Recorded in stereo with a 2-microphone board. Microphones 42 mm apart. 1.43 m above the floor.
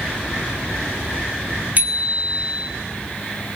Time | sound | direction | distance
1.8 | a bicycle bell | 40° right (ahead or behind) | 2.5 m